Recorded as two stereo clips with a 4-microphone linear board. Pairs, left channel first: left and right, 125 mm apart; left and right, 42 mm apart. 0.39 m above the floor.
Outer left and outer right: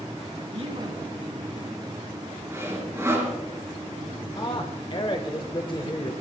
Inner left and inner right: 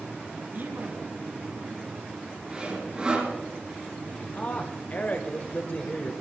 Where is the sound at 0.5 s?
55° right (ahead or behind), 3.5 m.